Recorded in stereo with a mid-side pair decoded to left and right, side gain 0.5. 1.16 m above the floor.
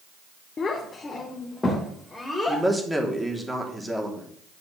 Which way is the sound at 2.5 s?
10° right.